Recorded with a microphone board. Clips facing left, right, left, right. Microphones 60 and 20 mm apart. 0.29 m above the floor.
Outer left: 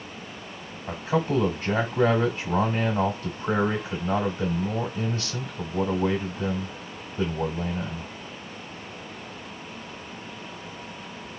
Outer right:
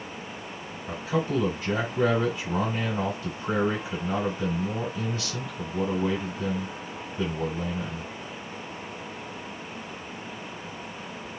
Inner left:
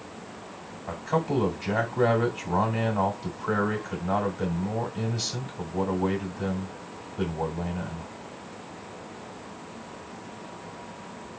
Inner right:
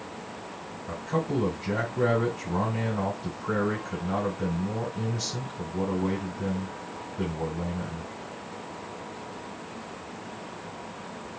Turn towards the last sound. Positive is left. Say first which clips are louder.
# outer left 2 dB, inner left 2 dB
turn(degrees=35)  # may be behind; listen again after turning